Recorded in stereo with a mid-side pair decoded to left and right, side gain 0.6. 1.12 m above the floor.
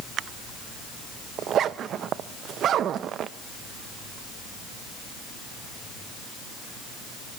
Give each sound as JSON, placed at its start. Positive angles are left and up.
{"t": 1.4, "sound": "a zipper", "azimuth_deg": -50, "distance_m": 0.6}